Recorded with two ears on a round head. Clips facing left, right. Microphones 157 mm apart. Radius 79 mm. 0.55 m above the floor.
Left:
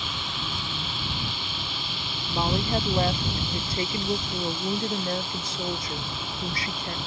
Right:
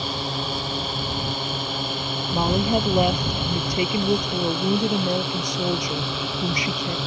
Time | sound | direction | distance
0.0 | a drone | 35° right (ahead or behind) | ?
2.3 | a woman speaking | 15° right (ahead or behind) | ?